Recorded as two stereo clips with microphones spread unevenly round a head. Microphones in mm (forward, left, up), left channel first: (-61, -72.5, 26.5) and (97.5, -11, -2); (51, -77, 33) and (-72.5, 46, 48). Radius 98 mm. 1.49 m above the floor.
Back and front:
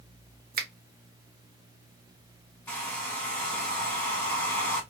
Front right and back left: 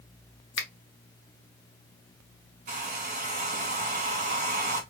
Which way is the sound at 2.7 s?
135° left.